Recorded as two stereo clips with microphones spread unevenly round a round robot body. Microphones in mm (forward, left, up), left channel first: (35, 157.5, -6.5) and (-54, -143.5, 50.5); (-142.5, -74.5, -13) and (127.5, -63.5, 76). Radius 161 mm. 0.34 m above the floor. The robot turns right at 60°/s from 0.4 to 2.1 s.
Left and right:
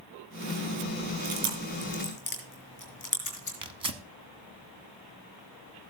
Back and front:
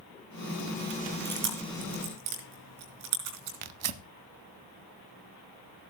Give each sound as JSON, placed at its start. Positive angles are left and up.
{"t": 1.2, "sound": "chewing", "azimuth_deg": -60, "distance_m": 5.0}
{"t": 3.6, "sound": "tearing paper", "azimuth_deg": -30, "distance_m": 0.9}